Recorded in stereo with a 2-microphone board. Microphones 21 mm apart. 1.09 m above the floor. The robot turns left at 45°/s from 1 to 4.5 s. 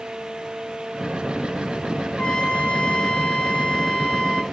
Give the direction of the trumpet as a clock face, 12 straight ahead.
8 o'clock.